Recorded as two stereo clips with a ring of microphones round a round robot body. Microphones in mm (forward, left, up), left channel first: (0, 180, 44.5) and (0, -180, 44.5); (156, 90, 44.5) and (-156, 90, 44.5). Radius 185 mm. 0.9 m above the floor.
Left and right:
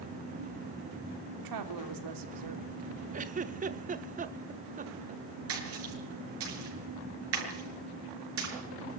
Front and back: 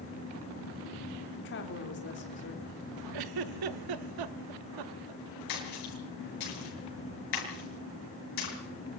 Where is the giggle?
160° right, 0.8 m.